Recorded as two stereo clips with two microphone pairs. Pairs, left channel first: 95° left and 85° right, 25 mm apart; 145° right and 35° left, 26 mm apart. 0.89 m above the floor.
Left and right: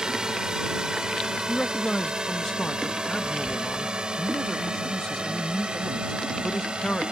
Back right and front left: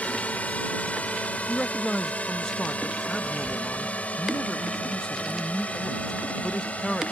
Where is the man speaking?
160° left.